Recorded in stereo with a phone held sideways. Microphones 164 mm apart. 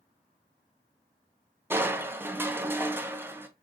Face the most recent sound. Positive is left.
turn(degrees=-15)  # may be behind; listen again after turning